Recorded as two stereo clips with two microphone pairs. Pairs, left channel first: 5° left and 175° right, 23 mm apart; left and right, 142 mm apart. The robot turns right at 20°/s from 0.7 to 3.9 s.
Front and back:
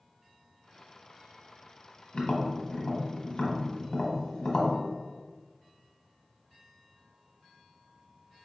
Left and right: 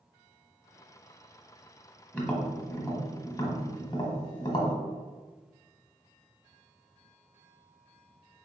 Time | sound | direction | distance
2.1 | tapping | 10° left | 1.1 m